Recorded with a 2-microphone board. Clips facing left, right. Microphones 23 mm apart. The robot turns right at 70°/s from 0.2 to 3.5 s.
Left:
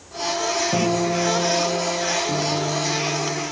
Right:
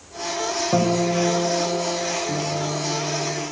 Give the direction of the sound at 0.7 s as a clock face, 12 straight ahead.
2 o'clock.